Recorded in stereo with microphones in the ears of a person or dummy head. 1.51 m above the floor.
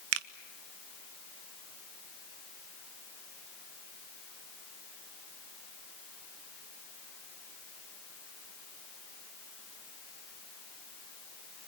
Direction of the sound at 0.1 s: 85° right.